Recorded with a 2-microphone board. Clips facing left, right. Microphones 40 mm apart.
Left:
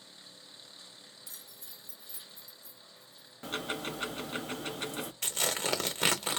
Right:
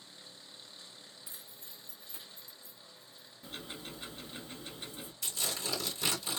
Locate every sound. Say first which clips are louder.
1.3 s keys jangling: even; 20° right (ahead or behind), 0.5 m; by 3.3 s 35° right (ahead or behind), 1.3 m
3.4 s ticking: left 9 dB; 70° left (ahead or behind), 0.5 m
5.2 s tearing paper: left 4 dB; 60° left (ahead or behind), 1.0 m